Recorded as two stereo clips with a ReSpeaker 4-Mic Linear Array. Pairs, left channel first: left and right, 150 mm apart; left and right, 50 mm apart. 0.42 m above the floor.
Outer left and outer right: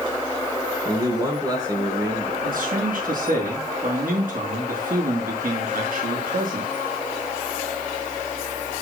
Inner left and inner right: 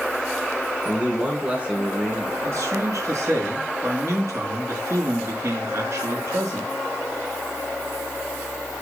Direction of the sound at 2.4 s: 70° right (ahead or behind).